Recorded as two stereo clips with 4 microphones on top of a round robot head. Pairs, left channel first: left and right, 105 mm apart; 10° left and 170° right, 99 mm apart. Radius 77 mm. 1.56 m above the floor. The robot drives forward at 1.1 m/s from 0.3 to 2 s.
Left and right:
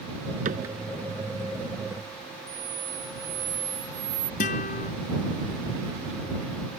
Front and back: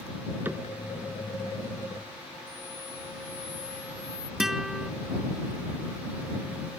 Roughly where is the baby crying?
No baby crying in this recording.